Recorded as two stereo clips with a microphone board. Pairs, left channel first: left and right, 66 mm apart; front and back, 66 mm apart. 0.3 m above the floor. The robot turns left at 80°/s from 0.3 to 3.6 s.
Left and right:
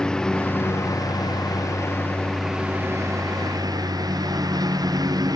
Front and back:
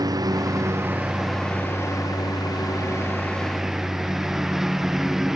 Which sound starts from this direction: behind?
A lawn mower, at 0.0 s.